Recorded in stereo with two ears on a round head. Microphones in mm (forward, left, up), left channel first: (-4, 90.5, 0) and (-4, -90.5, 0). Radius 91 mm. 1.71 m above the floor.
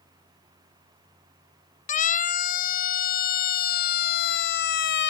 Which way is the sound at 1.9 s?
40° left (ahead or behind).